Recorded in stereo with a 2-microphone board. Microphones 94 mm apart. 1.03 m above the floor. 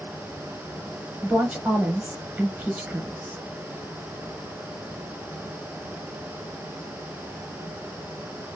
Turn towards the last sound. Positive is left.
turn(degrees=-20)  # may be behind; listen again after turning